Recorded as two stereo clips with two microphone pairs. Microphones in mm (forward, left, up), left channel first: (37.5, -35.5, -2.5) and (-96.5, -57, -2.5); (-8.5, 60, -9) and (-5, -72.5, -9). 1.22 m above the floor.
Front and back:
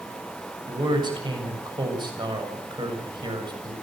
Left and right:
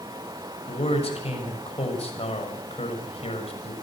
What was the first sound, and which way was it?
A man speaking, 135° left.